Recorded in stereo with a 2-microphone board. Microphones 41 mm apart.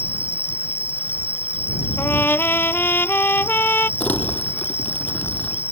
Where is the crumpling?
40° left (ahead or behind).